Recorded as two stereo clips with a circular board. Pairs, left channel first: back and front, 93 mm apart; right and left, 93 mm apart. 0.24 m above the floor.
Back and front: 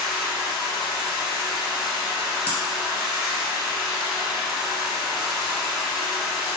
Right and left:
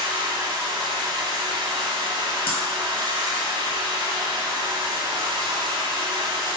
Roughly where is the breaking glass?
Right.